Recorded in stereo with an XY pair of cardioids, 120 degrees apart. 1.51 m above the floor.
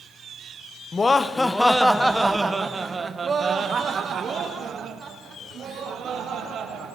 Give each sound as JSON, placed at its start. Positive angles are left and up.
{"t": 0.9, "sound": "laughter", "azimuth_deg": 25, "distance_m": 1.2}